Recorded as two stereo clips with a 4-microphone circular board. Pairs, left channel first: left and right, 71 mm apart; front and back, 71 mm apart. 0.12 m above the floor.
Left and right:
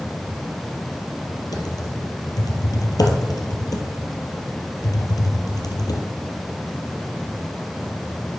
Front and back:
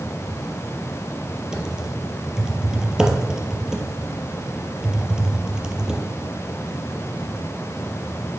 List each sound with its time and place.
1.5 s typing on a keyboard: 100° left, 0.8 m